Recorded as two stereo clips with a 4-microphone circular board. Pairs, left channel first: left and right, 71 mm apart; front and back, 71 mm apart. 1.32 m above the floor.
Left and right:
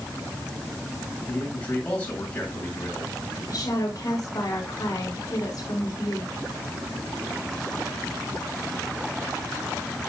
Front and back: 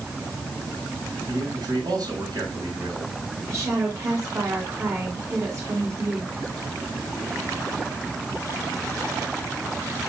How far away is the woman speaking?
About 5.5 m.